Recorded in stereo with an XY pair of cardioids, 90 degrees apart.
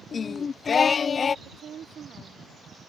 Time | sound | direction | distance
0.1 | singing | 45° left | ?
1.4 | a woman speaking | 65° right | ?